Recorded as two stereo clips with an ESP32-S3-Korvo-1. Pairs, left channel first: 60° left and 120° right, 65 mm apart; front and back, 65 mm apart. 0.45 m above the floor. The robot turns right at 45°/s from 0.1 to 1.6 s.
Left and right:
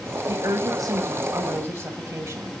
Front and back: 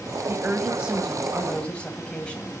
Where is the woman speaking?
130° right, 2 m; by 2.6 s 70° right, 2 m.